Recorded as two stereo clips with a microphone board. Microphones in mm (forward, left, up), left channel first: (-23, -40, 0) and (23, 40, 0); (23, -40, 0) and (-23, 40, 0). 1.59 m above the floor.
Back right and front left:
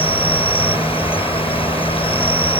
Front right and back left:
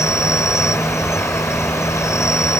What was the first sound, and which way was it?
An insect, 115° right.